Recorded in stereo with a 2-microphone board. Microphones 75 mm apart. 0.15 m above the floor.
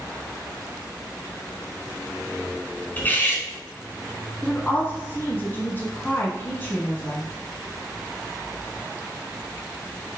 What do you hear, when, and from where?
3.0 s cutlery clinking: 25° left (ahead or behind), 0.6 m
4.4 s a woman speaking: 25° left (ahead or behind), 1.1 m